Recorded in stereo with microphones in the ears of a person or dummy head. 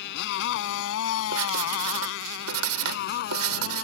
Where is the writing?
85° right.